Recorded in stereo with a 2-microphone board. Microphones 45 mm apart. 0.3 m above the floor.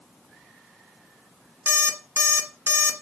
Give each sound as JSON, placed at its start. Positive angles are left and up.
{"t": 1.7, "sound": "an alarm clock", "side_deg": -65, "distance_m": 1.6}